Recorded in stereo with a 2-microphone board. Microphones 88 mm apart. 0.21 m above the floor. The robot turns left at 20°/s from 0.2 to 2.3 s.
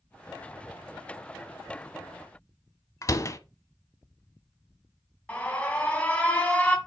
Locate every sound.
3.0 s a door slam: 35° left (ahead or behind), 0.9 m
5.3 s an alarm: 15° left (ahead or behind), 1.6 m